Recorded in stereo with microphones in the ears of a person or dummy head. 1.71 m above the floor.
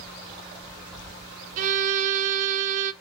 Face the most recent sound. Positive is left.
turn(degrees=-45)  # may be behind; listen again after turning